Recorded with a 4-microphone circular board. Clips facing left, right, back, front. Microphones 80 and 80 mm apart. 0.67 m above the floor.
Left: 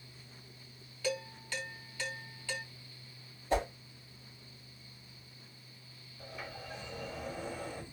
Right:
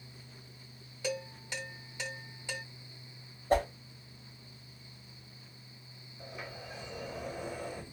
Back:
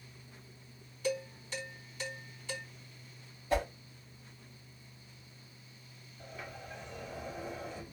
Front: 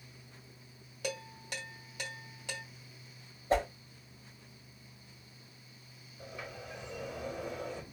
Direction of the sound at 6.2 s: 15° right.